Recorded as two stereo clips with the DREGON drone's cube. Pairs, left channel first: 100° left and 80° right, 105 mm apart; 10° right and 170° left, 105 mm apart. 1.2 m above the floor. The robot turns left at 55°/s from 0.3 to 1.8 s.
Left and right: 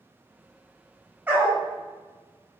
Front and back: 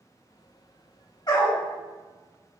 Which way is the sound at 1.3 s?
15° right.